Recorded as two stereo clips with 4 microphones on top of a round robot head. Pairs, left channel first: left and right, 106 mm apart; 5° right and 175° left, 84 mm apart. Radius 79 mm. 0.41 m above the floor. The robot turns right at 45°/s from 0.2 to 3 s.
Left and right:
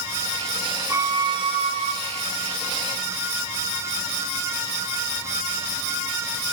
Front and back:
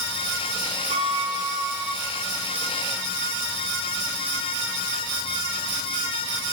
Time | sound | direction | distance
0.9 | a violin | 155° right | 1.2 m